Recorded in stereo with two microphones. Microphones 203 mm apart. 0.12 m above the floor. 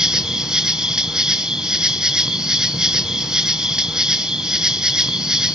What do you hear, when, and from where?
0.0 s an insect: 5° right (ahead or behind), 0.7 m